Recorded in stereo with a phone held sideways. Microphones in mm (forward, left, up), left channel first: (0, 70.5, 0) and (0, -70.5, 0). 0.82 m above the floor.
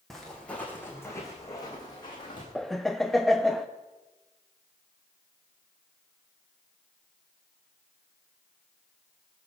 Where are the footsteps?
Centre (ahead or behind), 2.5 m; by 2.5 s 35° left (ahead or behind), 4 m.